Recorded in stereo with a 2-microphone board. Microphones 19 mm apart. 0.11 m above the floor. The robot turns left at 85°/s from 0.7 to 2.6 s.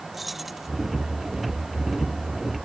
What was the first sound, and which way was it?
Keys jangling, 5° right (ahead or behind).